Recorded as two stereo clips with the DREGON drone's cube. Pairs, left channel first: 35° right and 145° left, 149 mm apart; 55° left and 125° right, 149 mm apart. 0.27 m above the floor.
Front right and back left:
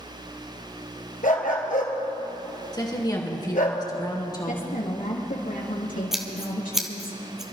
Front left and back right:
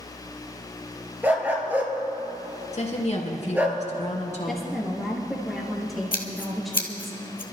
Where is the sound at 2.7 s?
25° left, 2.5 m.